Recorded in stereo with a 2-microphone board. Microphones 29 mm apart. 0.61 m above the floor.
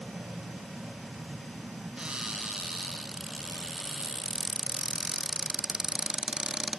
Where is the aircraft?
70° right (ahead or behind).